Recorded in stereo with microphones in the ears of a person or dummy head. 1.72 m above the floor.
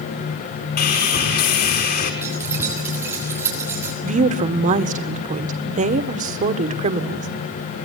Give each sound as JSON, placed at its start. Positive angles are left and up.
{"t": 0.8, "sound": "sawing", "side_deg": 50, "distance_m": 5.5}
{"t": 2.2, "sound": "keys jangling", "side_deg": -15, "distance_m": 7.5}
{"t": 4.0, "sound": "a woman speaking", "side_deg": -35, "distance_m": 1.5}